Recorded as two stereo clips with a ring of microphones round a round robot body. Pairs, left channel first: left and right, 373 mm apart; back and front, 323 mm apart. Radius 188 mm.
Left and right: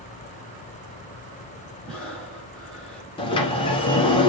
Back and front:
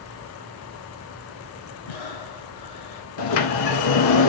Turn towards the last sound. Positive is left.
turn(degrees=165)